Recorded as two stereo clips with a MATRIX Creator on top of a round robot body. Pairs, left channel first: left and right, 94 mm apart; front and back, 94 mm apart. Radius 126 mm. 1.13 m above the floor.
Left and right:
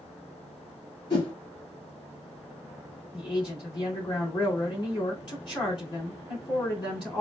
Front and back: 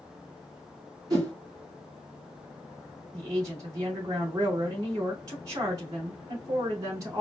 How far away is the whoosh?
About 2.5 m.